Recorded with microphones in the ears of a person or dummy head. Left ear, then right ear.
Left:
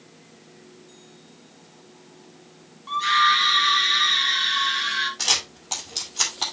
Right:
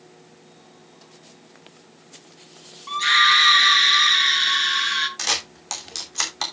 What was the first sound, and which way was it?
A scream, 65° right (ahead or behind).